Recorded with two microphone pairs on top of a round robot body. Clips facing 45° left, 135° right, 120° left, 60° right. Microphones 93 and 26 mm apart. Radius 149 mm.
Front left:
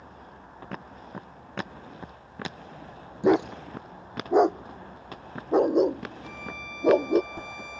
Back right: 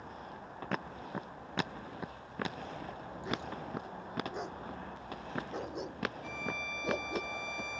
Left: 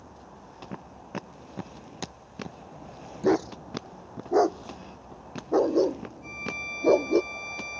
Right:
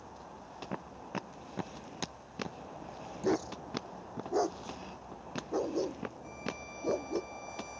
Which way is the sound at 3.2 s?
60° left.